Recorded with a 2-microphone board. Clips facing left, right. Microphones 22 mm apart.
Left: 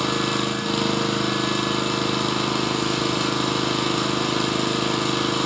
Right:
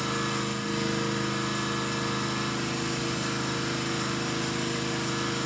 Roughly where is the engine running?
Left.